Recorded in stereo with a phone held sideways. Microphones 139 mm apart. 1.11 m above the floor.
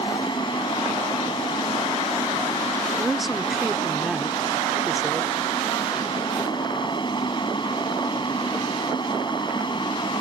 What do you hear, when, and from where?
0.0 s a fan: 35° left (ahead or behind)
3.0 s a woman speaking: centre (ahead or behind)